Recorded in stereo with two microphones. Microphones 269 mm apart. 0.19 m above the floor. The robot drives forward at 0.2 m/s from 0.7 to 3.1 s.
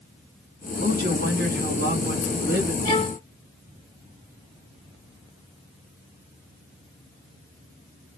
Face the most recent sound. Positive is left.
turn(degrees=-30)  # may be behind; listen again after turning